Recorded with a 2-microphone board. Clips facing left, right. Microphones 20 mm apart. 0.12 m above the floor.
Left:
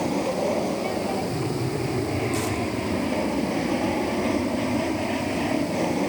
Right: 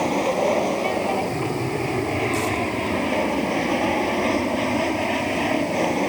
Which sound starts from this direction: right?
An aircraft, at 0.0 s.